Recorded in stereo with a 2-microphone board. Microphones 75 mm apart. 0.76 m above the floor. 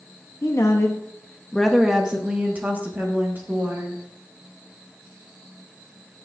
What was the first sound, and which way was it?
A woman speaking, 40° left (ahead or behind).